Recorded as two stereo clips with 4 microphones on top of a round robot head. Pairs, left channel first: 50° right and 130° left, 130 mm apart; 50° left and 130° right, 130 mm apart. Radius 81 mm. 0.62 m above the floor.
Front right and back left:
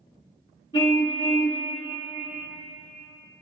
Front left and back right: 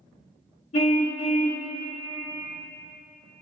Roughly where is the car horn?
Ahead.